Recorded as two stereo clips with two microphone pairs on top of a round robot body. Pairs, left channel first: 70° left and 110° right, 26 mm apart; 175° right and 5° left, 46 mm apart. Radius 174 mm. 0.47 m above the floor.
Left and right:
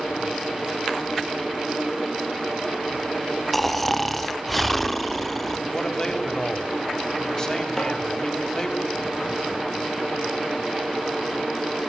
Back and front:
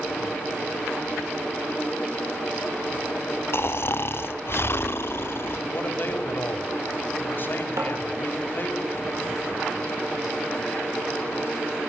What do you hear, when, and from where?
3.5 s snoring: 155° left, 1.8 m
5.7 s a man speaking: 135° left, 5 m
7.8 s tapping: 5° right, 8 m